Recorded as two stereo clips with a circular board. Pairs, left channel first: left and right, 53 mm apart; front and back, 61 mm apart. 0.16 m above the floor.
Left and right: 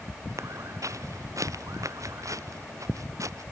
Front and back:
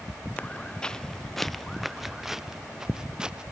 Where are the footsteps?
70° right; by 3.4 s 105° right.